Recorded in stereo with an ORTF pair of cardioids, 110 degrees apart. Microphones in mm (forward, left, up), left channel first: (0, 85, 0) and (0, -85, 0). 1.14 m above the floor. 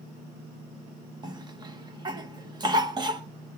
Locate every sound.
1.2 s a cough: 25° right, 1.7 m